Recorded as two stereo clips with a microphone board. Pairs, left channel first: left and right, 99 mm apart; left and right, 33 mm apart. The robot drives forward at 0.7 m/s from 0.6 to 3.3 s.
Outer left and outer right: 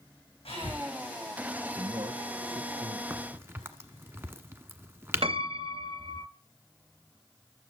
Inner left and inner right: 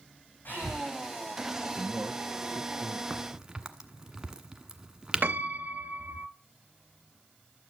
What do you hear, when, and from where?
0.5 s breathing: 65° left (ahead or behind), 5.5 m; by 0.9 s 60° left (ahead or behind), 5.5 m
1.8 s a man speaking: 45° right (ahead or behind), 2 m; by 3.0 s 55° right (ahead or behind), 1.9 m
3.1 s a crack: 20° right (ahead or behind), 1.1 m
5.2 s a piano: 65° right (ahead or behind), 0.6 m